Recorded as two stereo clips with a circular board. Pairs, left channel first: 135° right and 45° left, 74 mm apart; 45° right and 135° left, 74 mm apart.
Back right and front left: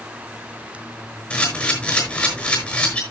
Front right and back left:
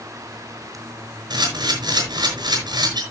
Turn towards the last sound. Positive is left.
turn(degrees=150)